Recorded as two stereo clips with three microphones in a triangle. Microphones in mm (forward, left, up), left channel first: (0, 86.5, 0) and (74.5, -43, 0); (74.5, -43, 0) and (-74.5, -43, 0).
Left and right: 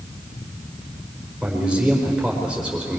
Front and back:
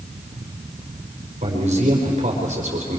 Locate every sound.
1.4 s a man speaking: 145° right, 4 m